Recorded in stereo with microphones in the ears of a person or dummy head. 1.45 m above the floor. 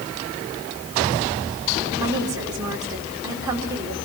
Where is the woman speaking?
20° right (ahead or behind), 4.5 m.